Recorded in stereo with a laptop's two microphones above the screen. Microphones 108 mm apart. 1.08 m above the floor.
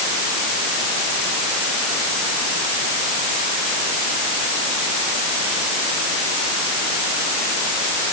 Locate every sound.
Only background noise.